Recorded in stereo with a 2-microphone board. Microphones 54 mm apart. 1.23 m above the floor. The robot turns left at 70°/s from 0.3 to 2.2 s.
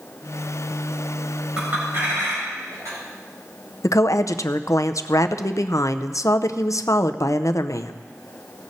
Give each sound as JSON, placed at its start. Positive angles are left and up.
{"t": 1.6, "sound": "a clink", "side_deg": -20, "distance_m": 4.5}
{"t": 3.8, "sound": "a woman speaking", "side_deg": 75, "distance_m": 0.5}